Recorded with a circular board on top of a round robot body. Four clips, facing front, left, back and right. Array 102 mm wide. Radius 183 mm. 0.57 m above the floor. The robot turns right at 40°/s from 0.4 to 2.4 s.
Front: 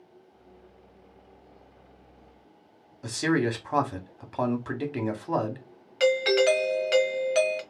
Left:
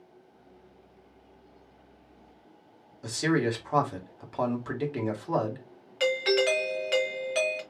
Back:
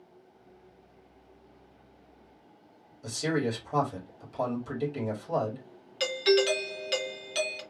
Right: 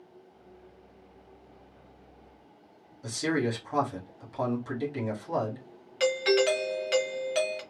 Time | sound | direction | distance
3.0 | a man speaking | 25° left | 1.9 m
6.0 | a doorbell | 5° left | 1.8 m